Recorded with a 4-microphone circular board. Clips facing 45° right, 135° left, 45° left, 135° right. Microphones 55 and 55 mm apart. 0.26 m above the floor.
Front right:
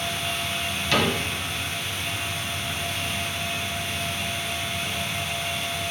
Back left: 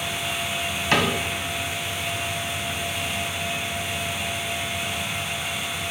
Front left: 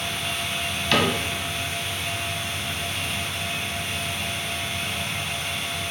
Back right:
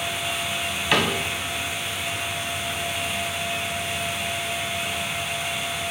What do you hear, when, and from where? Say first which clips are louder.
0.9 s a cupboard door: back left 1 dB, even; 155° left, 1.5 m